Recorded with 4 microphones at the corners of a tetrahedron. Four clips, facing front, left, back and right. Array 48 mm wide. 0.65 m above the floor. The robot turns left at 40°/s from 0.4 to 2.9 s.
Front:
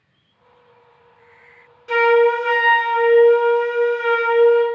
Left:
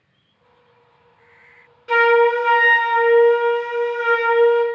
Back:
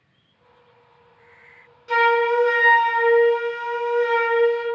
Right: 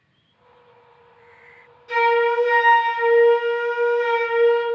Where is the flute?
80° left, 0.7 m; by 4.6 s 35° left, 0.7 m.